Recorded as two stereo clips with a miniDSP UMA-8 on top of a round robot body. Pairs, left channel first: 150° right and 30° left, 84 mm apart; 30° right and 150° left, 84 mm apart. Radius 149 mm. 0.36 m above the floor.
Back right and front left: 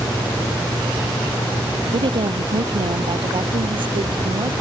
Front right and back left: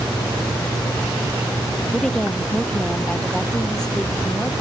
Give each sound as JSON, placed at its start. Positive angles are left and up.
{"t": 1.9, "sound": "a woman speaking", "azimuth_deg": 55}